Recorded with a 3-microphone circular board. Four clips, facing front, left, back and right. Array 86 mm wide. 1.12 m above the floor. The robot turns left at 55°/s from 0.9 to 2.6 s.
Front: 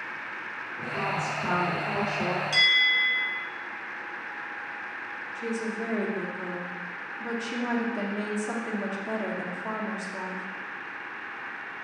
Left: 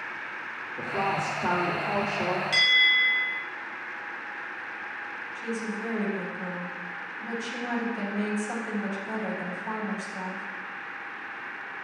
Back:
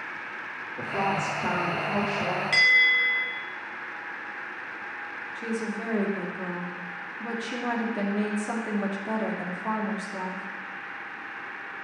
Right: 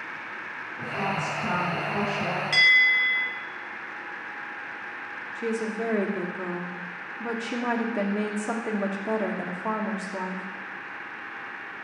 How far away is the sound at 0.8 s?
About 3 m.